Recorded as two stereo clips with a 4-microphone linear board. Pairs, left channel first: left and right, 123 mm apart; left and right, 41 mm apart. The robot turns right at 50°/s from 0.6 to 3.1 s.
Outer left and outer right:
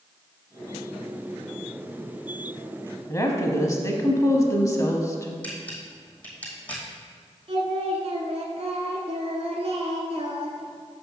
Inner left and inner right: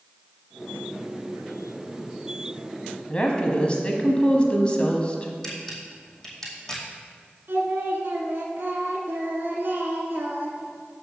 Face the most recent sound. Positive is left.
turn(degrees=-60)  # may be behind; listen again after turning